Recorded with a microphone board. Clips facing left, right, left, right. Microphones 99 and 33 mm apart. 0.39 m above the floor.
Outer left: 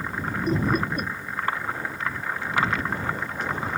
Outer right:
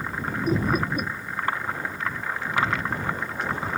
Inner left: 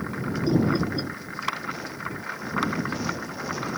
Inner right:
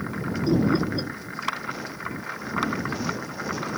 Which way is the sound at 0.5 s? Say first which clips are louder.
Even, inner right 1 dB; 5° right (ahead or behind).